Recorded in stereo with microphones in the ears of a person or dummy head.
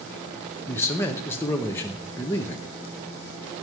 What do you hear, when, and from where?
0.7 s a man speaking: 15° left (ahead or behind), 0.7 m